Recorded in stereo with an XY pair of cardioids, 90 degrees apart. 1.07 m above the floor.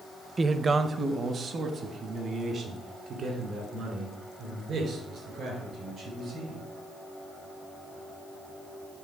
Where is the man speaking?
30° right, 0.6 m; by 6.6 s 70° right, 5 m.